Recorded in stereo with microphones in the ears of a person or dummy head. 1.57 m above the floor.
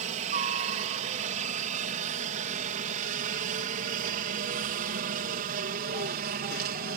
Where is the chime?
I don't hear a chime.